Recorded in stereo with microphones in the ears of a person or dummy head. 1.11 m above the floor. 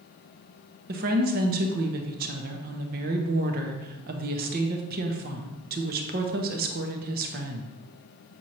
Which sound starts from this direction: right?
A woman speaking, at 0.9 s.